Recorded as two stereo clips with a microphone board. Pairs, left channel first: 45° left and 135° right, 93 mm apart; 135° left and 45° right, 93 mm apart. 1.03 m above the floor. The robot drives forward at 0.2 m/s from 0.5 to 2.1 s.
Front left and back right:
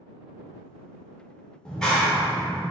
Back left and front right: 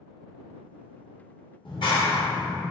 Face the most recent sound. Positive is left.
turn(degrees=130)